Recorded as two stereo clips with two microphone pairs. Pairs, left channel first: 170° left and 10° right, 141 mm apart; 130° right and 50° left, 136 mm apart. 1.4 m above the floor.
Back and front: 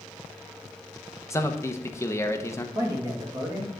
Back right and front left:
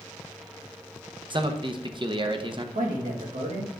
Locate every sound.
1.3 s a man speaking: 100° left, 0.8 m
2.8 s a man speaking: 55° left, 2.5 m